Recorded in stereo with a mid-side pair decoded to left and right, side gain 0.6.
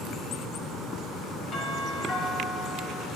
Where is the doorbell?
50° left, 5 m.